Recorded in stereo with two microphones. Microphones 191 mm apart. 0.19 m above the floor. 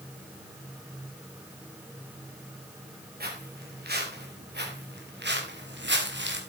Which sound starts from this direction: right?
Footsteps, at 3.2 s.